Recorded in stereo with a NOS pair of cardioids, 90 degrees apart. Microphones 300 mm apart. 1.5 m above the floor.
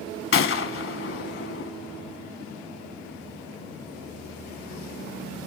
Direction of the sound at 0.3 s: 45° left.